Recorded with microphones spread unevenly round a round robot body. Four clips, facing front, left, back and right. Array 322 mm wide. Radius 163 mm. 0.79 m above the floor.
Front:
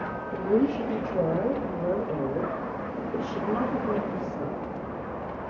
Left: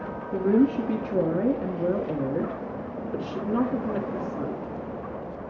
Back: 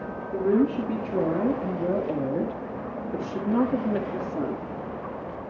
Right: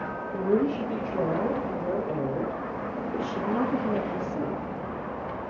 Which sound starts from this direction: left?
A woman speaking, at 0.3 s.